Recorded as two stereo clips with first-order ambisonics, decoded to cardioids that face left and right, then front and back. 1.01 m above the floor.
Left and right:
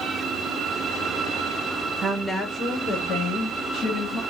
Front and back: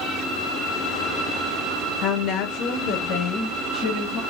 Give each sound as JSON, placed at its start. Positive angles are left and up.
{"t": 2.0, "sound": "a woman speaking", "azimuth_deg": -25, "distance_m": 0.6}